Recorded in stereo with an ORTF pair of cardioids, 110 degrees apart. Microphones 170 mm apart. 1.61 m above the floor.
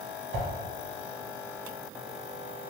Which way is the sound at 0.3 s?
55° right.